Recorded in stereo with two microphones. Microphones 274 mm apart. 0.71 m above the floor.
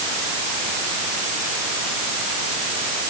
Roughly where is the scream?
No scream in this recording.